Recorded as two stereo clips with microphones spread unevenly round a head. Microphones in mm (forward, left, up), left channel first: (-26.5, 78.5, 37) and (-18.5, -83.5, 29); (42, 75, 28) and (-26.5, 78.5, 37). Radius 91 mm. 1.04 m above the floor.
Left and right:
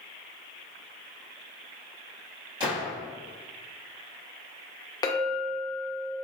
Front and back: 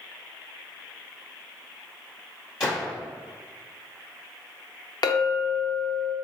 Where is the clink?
25° left, 0.6 m.